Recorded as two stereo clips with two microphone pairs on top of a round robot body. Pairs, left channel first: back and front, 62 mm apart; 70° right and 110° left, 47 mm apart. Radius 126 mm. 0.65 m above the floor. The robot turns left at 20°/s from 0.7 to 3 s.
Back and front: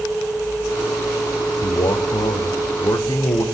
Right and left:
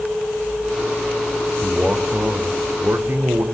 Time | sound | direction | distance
1.6 | a man speaking | straight behind | 2.5 m